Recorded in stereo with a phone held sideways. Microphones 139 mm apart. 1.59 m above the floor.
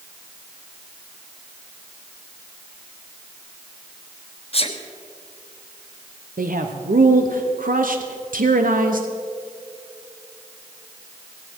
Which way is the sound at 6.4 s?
85° right.